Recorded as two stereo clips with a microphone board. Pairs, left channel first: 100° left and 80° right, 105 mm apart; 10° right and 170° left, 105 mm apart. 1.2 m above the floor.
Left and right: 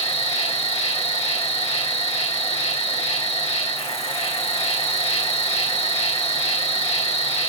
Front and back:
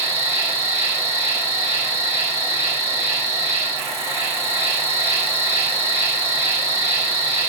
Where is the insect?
105° left, 2.5 m.